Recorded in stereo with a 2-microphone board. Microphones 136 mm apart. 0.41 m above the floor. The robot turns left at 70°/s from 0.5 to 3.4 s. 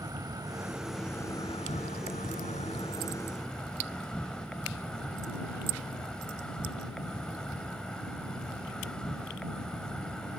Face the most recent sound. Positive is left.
turn(degrees=5)